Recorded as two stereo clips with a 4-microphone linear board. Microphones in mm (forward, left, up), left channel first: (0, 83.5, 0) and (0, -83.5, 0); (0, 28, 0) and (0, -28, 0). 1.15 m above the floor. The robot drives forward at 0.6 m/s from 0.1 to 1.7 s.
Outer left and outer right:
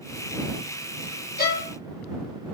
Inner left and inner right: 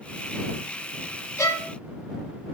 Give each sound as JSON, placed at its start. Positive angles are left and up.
{"t": 1.4, "sound": "a violin", "side_deg": 60, "distance_m": 1.2}